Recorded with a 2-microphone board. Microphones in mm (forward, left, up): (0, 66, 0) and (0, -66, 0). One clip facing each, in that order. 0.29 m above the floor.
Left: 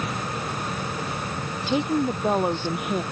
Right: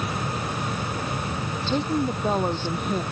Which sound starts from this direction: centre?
A woman speaking, at 1.7 s.